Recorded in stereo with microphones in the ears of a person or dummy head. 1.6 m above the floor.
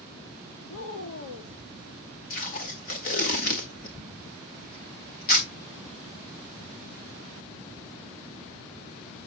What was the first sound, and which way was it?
A woman speaking, 75° left (ahead or behind).